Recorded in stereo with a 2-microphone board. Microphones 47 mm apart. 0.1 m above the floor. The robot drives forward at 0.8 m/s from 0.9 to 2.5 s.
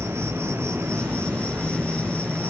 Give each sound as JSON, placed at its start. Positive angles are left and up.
{"t": 0.0, "sound": "an insect", "side_deg": -60, "distance_m": 4.0}